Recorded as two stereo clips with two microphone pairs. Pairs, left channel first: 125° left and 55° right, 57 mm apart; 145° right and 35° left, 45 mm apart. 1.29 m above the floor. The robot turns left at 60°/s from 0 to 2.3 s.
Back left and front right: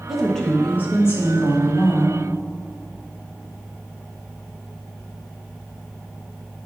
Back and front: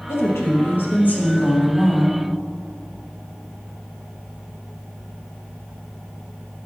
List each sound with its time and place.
0.1 s a woman speaking: 135° right, 1.5 m; by 2.2 s 100° left, 1.5 m